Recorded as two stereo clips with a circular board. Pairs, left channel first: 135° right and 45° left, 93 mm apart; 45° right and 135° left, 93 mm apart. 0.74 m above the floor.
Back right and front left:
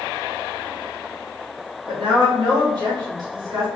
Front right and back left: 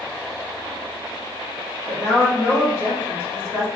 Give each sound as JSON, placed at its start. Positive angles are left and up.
{"t": 1.9, "sound": "a woman speaking", "azimuth_deg": 10, "distance_m": 1.7}